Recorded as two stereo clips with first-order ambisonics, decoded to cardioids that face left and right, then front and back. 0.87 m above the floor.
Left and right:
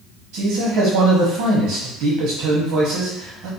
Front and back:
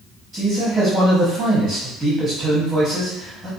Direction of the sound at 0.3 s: 100° right.